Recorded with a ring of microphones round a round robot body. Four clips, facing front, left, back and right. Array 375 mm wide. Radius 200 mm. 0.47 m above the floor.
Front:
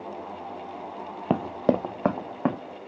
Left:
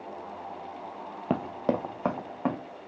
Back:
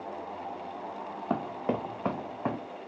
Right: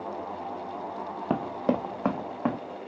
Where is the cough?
No cough in this recording.